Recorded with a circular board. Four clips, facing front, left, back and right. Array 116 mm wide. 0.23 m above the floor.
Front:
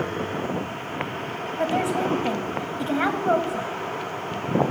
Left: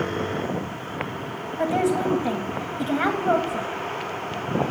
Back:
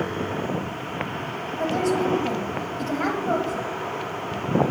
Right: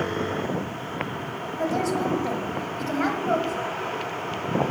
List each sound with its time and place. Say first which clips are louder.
1.6 s a woman speaking: left 3 dB, back 1 dB; 40° left, 1.2 m